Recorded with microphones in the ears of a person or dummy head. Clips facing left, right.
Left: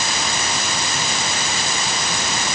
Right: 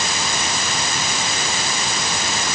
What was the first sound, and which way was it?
Only background noise.